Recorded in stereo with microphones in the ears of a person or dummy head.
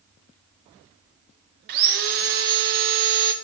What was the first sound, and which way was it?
Sawing, 55° right (ahead or behind).